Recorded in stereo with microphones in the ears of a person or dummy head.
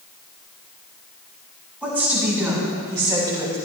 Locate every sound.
1.8 s a woman speaking: 10° right (ahead or behind), 5 m; by 3.6 s 30° right (ahead or behind), 4 m